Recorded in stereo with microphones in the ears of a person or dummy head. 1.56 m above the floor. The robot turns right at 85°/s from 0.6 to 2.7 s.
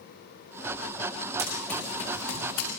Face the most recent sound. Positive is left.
turn(degrees=80)